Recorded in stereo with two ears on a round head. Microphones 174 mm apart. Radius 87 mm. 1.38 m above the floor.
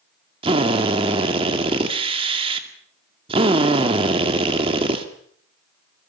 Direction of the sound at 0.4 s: 30° right (ahead or behind).